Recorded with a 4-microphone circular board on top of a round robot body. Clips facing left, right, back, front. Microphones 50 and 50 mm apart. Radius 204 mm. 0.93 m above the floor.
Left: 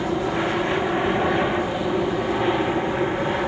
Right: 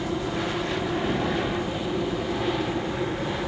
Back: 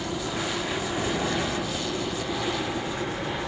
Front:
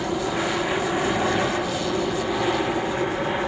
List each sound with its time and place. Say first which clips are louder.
0.0 s an aircraft: left 5 dB, front 5 dB; 50° left